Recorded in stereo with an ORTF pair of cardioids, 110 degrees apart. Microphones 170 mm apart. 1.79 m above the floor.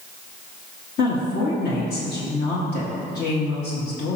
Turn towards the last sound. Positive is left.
turn(degrees=65)